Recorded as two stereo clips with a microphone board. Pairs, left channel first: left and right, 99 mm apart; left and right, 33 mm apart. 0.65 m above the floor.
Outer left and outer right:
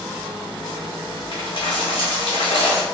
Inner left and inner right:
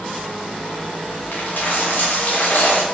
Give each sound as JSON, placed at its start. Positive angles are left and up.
{"t": 1.3, "sound": "a dropped coin", "side_deg": 60, "distance_m": 0.7}